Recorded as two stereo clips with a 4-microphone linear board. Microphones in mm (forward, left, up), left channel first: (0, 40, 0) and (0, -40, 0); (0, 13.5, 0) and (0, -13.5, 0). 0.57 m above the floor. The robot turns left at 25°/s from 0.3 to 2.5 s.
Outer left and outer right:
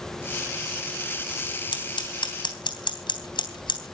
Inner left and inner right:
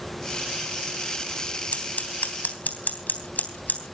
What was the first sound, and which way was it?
Scissors, 75° left (ahead or behind).